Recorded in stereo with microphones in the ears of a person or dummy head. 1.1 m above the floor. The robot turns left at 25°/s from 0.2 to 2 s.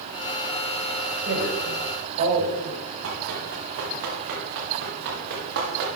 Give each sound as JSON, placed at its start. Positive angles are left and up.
{"t": 1.2, "sound": "a woman speaking", "side_deg": -75, "distance_m": 6.0}
{"t": 3.0, "sound": "running footsteps", "side_deg": -75, "distance_m": 5.0}